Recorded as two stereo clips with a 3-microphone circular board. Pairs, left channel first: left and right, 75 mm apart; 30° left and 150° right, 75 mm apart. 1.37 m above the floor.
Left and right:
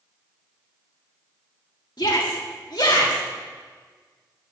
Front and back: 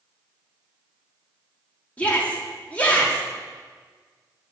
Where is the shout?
100° left, 3 m.